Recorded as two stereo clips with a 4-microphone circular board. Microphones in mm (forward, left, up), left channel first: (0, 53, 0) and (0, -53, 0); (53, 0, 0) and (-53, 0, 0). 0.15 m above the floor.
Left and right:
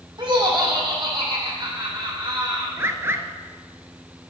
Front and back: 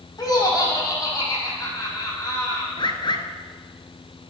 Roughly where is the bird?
Ahead right.